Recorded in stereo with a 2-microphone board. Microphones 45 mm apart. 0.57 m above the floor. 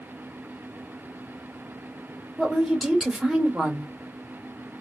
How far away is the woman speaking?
About 1.4 m.